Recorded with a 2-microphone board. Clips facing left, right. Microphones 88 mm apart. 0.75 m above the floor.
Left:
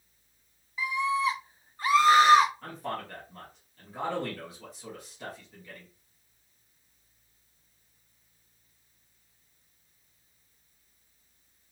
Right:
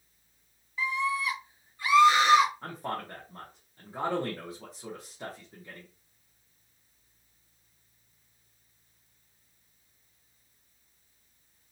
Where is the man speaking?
25° right (ahead or behind), 1.2 m.